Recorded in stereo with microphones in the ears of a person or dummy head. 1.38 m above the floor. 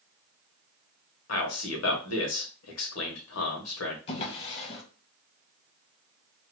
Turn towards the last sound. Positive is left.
turn(degrees=35)  # may be behind; listen again after turning